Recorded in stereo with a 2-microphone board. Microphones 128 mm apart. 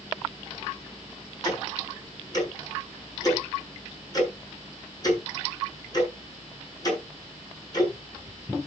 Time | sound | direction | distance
1.4 | ticking | 30° left (ahead or behind) | 7 m